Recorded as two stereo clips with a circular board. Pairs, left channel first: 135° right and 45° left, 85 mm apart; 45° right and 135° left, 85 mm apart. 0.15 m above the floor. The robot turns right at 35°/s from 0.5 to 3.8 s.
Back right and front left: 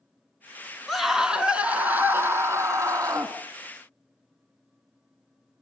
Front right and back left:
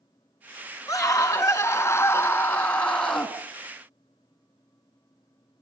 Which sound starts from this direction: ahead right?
A scream, at 0.9 s.